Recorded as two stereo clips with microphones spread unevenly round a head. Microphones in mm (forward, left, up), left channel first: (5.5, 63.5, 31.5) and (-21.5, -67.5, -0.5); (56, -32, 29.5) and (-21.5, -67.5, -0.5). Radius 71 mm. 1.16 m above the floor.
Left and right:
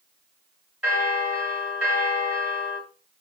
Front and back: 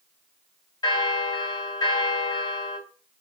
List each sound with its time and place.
0.8 s a bell: 20° right, 1.5 m